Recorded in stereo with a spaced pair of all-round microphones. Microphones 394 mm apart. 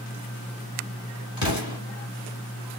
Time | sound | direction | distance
1.4 | an explosion | 65° left (ahead or behind) | 1.7 m